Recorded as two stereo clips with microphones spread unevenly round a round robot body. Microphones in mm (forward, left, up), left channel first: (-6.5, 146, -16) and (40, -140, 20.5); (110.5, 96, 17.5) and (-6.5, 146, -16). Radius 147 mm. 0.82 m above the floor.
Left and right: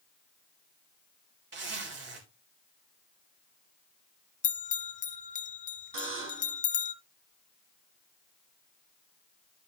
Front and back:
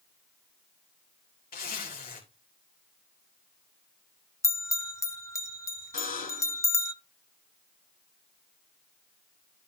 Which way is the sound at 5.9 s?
30° right.